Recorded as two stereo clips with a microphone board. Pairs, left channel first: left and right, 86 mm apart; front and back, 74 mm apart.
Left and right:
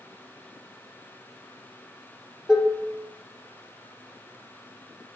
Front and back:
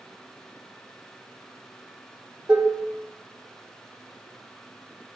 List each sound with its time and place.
2.5 s dishes clattering: 160° right, 0.5 m